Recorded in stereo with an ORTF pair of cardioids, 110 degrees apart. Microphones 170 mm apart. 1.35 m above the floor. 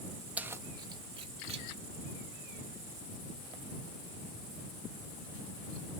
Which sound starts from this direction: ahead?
Keys jangling, at 0.4 s.